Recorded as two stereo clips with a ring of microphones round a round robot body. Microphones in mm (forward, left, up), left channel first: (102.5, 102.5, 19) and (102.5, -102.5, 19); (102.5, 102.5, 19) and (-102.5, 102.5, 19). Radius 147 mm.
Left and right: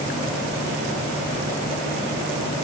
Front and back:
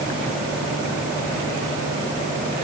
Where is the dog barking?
I don't hear a dog barking.